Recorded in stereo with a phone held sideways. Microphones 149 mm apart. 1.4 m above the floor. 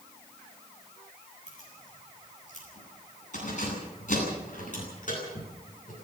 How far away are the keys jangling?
About 9 m.